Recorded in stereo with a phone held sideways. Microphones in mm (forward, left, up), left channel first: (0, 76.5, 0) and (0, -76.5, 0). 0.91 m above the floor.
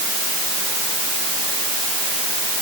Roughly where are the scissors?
I don't hear scissors.